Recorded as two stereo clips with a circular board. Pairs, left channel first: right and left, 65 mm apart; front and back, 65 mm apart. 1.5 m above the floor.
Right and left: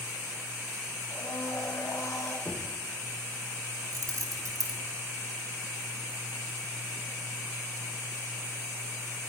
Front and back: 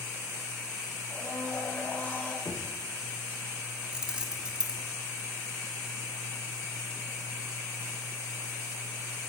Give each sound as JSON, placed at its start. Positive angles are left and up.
{"t": 1.1, "sound": "a blender", "azimuth_deg": -55, "distance_m": 3.0}
{"t": 2.5, "sound": "knocking", "azimuth_deg": -20, "distance_m": 1.2}
{"t": 3.9, "sound": "keys jangling", "azimuth_deg": 105, "distance_m": 1.7}